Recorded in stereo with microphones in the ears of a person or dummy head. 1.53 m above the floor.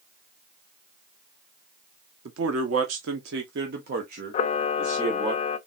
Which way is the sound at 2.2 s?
70° right (ahead or behind).